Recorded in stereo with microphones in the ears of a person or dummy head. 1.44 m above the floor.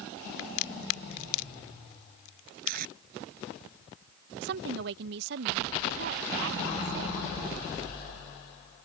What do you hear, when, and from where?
0.4 s a crack: 80° left
2.6 s tape being pulled: 55° right (ahead or behind)
4.4 s a woman speaking: 65° right (ahead or behind)